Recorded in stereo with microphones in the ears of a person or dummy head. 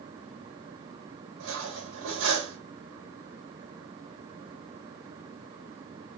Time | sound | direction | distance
1.4 | cutlery clinking | 80° right | 3 m